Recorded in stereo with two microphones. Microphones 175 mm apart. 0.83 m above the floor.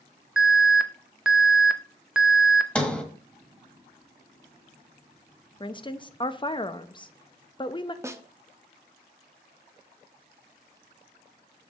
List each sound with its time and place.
0.4 s an alarm: 5° right (ahead or behind), 0.6 m
2.8 s a sliding door: 5° left (ahead or behind), 1.1 m
5.6 s a woman speaking: 30° left (ahead or behind), 0.5 m
8.0 s a snare drum: 15° right (ahead or behind), 0.5 m